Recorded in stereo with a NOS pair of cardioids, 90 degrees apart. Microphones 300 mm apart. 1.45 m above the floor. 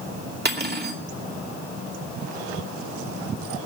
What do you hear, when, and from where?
0.5 s cutlery clinking: 35° right, 2.5 m